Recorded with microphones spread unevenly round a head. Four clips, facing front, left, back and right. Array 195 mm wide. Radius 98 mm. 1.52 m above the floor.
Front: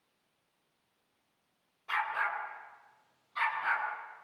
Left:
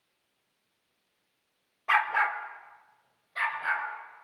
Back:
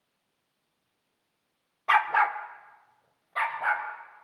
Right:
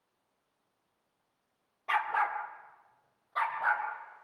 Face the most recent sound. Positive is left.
turn(degrees=-160)